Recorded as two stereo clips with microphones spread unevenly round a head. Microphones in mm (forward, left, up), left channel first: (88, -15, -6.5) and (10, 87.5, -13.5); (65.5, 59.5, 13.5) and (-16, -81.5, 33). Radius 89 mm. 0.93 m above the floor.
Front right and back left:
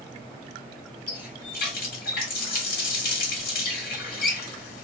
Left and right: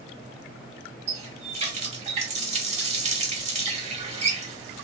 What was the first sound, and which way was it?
A running tap, 70° right.